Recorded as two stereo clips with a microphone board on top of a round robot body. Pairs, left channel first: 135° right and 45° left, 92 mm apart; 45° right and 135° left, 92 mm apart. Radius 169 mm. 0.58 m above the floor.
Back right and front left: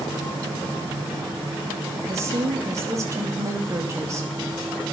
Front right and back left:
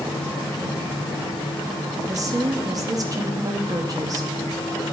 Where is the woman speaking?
95° left, 1.3 m.